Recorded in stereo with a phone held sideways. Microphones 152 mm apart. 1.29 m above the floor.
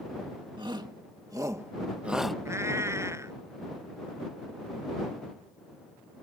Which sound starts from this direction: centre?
A cat meowing, at 2.5 s.